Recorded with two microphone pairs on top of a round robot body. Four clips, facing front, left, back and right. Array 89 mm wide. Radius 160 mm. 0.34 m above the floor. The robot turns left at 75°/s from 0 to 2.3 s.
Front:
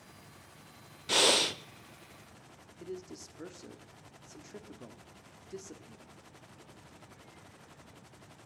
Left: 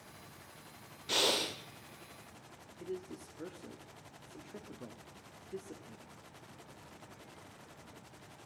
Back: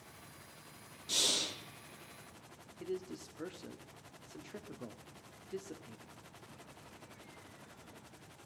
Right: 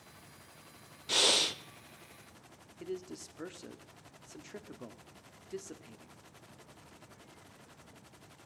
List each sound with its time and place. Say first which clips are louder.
1.1 s breathing: right 1 dB, front 12 dB; 15° left, 0.7 m; by 1.6 s 25° right, 0.7 m
2.8 s a man speaking: right 1 dB, back 2 dB; 90° right, 1.1 m